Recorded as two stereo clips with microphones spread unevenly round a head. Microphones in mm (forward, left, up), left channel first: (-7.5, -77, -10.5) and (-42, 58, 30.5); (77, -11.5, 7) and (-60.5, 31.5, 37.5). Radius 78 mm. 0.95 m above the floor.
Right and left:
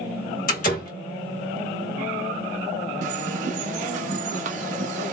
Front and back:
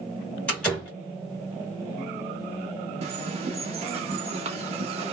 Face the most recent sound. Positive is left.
turn(degrees=120)